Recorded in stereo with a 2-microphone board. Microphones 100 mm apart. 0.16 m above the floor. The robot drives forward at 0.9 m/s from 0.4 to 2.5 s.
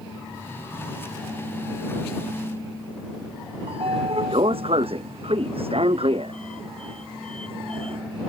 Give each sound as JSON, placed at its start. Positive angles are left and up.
{"t": 3.7, "sound": "a sliding door", "side_deg": -70}